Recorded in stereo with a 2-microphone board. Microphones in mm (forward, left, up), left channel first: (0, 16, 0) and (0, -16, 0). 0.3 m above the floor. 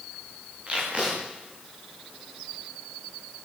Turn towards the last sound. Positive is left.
turn(degrees=-35)  # may be behind; listen again after turning